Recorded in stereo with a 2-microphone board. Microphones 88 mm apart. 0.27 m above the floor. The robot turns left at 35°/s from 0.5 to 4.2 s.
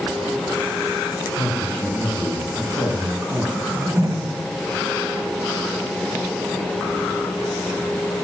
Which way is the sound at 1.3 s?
30° left.